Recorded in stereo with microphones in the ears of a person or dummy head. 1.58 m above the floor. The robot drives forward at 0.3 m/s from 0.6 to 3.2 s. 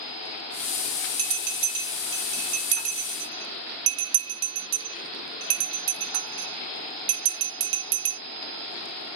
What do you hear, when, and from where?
1.2 s a bell: 40° right (ahead or behind), 1.1 m; by 8.2 s 70° right (ahead or behind), 0.8 m